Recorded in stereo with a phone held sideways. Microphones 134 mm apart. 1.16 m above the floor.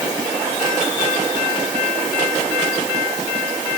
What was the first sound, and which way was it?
Only background noise.